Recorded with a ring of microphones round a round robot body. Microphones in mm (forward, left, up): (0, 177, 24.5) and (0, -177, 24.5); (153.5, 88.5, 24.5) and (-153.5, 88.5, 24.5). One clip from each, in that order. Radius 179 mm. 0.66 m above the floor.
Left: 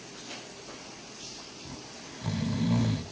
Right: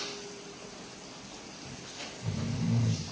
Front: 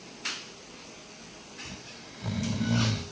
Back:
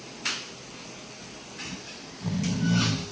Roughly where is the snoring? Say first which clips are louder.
Right 1 dB, back 4 dB; ahead left.